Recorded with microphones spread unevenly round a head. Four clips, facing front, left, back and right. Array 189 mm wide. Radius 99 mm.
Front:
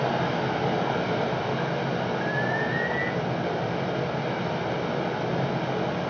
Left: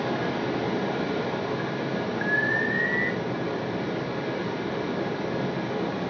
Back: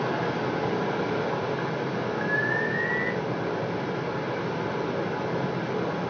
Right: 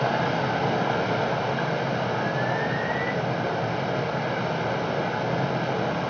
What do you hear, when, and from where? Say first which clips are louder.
0.0 s running water: right 3 dB, front 1 dB; 65° right, 2.5 m
2.2 s an alarm: right 1 dB, even; 155° left, 0.7 m